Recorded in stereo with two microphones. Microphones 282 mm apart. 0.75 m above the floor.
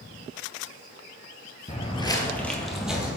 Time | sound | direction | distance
1.7 | footsteps | 25° left (ahead or behind) | 0.8 m